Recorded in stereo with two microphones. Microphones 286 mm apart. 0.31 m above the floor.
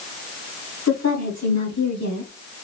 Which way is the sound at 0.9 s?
65° left (ahead or behind).